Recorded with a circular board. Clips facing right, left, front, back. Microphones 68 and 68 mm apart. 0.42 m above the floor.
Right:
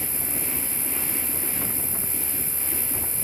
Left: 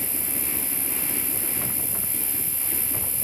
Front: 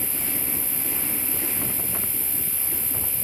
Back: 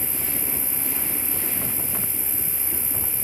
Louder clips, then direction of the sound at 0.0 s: Right 1 dB, even; 125° right.